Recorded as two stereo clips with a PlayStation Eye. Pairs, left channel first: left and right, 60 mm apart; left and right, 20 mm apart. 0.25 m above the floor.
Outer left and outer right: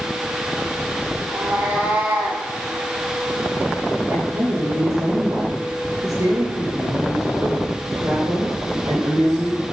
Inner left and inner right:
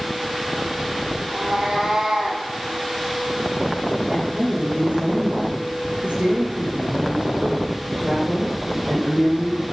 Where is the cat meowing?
35° right (ahead or behind), 4 m; by 2.4 s 30° right (ahead or behind), 3.5 m.